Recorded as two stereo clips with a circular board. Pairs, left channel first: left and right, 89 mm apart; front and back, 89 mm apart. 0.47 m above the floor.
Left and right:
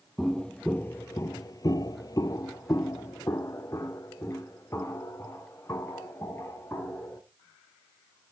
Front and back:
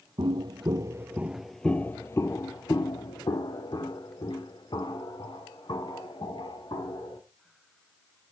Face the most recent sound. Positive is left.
turn(degrees=25)